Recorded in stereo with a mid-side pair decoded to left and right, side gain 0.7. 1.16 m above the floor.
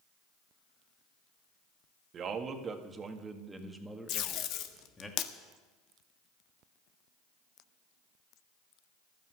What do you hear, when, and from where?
2.1 s a man speaking: 40° right, 1.9 m; by 5.1 s 15° left, 2 m
4.1 s tape being pulled: 60° left, 1.2 m